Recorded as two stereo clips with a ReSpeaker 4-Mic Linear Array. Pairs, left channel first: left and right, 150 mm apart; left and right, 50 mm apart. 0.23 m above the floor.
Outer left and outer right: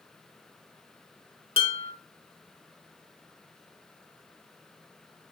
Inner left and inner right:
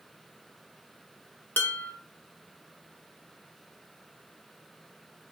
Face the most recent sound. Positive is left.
turn(degrees=35)  # may be behind; listen again after turning